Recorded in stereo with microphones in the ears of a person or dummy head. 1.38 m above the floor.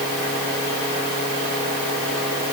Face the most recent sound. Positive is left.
No sound to turn to.